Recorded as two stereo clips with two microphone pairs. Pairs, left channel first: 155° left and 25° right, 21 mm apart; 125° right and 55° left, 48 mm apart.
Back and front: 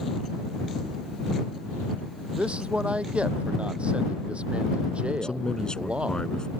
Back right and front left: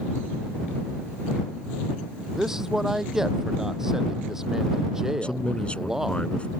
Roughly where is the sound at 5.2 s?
Behind.